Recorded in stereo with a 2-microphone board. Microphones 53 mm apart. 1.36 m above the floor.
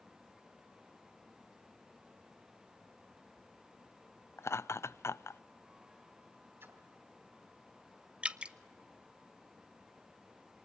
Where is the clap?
No clap in this recording.